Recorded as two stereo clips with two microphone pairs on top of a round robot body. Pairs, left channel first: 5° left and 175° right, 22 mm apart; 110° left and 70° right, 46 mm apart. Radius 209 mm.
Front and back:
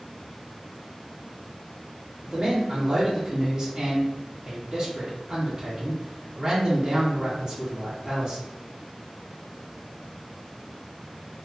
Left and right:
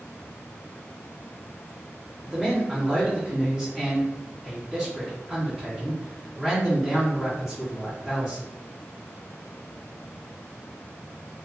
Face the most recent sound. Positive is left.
turn(degrees=-145)